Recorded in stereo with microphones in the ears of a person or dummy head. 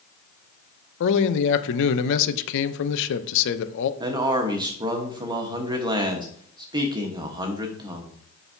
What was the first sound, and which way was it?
A man speaking, 70° left (ahead or behind).